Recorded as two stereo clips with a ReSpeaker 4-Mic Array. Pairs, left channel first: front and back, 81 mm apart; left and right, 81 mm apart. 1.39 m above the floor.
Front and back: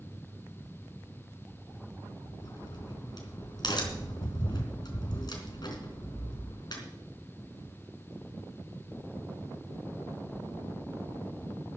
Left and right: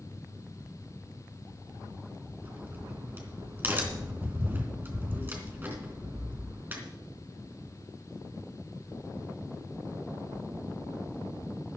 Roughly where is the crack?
Ahead right.